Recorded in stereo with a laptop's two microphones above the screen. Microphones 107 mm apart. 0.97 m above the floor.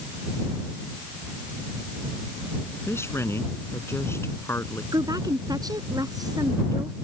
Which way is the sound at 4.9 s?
35° right (ahead or behind).